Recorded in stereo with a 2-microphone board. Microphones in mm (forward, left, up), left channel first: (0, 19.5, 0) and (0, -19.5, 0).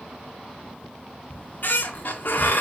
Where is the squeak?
60° left (ahead or behind), 0.6 m.